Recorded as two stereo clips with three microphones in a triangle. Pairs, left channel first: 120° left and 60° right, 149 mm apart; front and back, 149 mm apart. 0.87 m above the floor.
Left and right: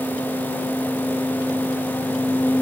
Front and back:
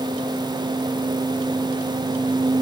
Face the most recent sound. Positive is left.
No sound to turn to.